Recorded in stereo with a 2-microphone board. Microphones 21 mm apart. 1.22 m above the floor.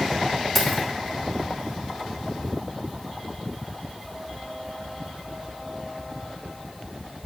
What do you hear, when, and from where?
0.6 s keys jangling: 10° left (ahead or behind), 2.5 m